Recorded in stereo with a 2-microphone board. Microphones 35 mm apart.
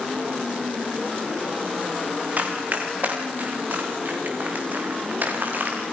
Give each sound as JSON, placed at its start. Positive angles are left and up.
{"t": 2.4, "sound": "running footsteps", "side_deg": -45, "distance_m": 6.0}